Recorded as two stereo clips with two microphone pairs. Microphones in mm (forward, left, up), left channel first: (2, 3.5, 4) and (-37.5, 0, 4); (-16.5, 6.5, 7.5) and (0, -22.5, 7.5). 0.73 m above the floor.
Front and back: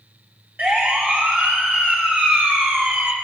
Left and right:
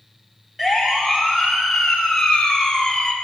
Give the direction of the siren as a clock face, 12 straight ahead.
5 o'clock.